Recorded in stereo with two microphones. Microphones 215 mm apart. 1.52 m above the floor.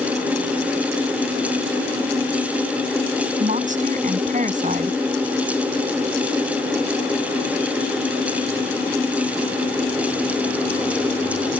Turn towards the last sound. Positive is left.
turn(degrees=-35)  # may be behind; listen again after turning